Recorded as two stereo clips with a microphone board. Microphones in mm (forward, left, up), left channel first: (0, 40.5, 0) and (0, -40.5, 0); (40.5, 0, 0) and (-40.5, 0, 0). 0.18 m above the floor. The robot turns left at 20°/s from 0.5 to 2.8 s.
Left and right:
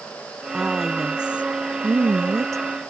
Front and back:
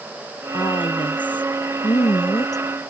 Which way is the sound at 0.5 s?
5° left.